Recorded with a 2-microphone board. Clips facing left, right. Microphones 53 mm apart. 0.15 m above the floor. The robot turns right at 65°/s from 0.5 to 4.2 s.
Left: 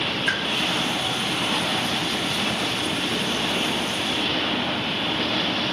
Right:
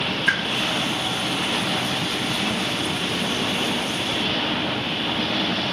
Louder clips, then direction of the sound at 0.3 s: Right 5 dB; 10° right (ahead or behind).